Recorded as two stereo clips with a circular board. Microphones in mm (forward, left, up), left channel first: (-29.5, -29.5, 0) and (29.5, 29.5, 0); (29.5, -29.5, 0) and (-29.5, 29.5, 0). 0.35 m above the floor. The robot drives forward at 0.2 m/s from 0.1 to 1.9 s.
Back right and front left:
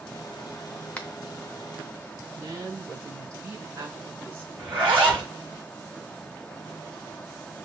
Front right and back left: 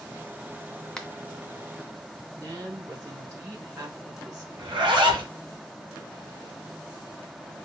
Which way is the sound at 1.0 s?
110° right.